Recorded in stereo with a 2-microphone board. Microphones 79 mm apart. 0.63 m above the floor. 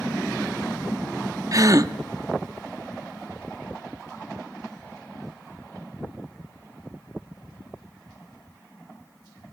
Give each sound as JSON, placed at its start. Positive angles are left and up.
{"t": 1.5, "sound": "a gasp", "side_deg": -45, "distance_m": 0.6}